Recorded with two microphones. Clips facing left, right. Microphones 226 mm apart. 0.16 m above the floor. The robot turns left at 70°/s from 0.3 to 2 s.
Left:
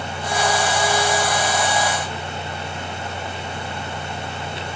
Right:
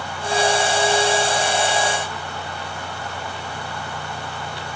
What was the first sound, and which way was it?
Only background noise.